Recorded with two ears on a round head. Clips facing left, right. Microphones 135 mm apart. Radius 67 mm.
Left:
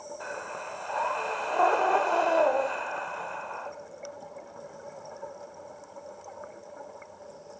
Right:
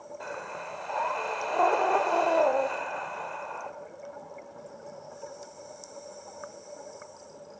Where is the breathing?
5° right (ahead or behind), 0.8 m.